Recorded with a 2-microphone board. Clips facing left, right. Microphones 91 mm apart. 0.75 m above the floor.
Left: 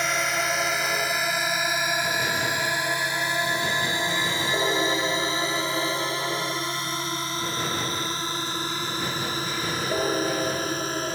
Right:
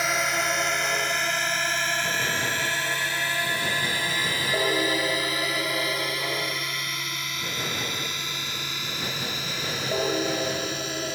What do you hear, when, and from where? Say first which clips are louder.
0.0 s a drone: even; centre (ahead or behind); by 11.1 s 40° left (ahead or behind)